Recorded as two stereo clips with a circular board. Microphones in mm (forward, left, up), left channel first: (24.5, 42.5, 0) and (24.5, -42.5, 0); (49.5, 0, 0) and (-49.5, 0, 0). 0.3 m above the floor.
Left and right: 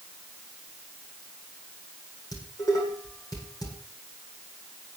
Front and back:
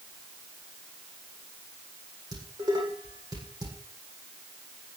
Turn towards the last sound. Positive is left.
turn(degrees=135)